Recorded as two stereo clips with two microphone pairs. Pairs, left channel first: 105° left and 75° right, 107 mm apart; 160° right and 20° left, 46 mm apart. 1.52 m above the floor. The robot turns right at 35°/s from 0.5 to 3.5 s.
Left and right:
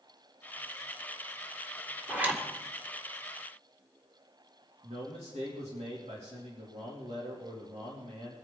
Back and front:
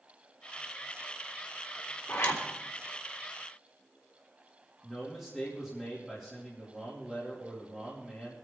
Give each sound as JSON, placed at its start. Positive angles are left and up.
{"t": 2.1, "sound": "a zipper", "azimuth_deg": -155, "distance_m": 2.0}
{"t": 4.8, "sound": "a man speaking", "azimuth_deg": -65, "distance_m": 3.0}